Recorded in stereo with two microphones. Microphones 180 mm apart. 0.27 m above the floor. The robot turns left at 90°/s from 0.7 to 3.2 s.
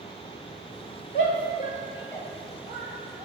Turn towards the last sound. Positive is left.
turn(degrees=-75)  # may be behind; listen again after turning